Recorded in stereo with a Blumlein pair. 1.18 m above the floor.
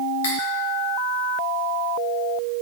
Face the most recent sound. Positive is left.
turn(degrees=55)